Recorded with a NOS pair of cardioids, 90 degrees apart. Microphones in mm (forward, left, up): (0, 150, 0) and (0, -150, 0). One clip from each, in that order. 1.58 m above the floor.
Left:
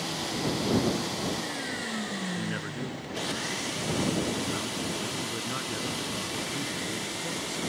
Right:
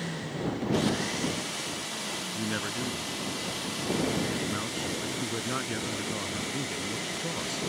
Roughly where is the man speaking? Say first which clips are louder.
Right 2 dB; ahead right.